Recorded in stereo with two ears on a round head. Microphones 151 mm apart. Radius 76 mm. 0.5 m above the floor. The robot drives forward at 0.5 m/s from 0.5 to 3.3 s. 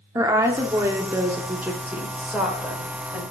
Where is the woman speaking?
15° right (ahead or behind), 0.7 m; by 3.2 s 5° right (ahead or behind), 1.7 m.